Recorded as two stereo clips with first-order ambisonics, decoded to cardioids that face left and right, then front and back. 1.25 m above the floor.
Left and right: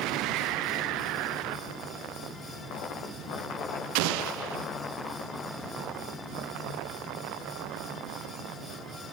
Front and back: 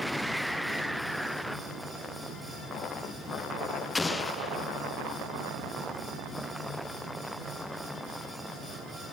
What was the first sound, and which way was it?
An explosion, 80° right.